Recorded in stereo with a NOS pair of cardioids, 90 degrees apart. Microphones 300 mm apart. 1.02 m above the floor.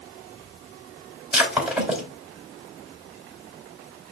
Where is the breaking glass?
Straight ahead, 3.5 m.